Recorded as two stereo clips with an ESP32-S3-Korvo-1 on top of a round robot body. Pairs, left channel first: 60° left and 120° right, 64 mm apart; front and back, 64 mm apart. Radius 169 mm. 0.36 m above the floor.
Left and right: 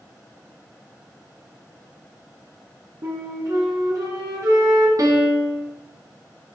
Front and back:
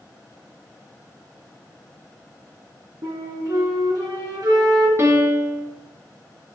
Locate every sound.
3.0 s a flute: 155° right, 1.8 m
5.0 s a piano: 135° right, 1.6 m